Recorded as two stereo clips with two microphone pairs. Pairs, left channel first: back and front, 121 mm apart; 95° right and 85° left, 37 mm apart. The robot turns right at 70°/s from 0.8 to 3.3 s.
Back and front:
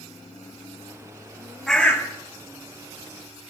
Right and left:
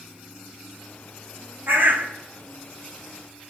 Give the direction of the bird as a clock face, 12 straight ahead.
9 o'clock.